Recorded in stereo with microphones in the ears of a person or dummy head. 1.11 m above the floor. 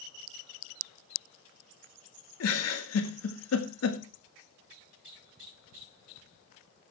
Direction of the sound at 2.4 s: 85° left.